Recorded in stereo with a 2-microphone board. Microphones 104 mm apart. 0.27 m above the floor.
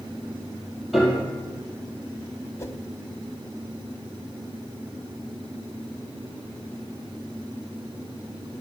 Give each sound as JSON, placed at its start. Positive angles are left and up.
{"t": 0.9, "sound": "a piano", "side_deg": 0, "distance_m": 5.0}
{"t": 2.6, "sound": "a whoosh", "side_deg": 30, "distance_m": 0.9}